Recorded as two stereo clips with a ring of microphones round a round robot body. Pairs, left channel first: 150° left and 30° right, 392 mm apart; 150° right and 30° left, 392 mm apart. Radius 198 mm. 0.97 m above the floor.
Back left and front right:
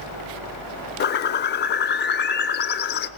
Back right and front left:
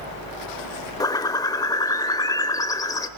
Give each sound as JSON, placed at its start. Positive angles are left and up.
{"t": 1.0, "sound": "a bird", "azimuth_deg": 140, "distance_m": 0.7}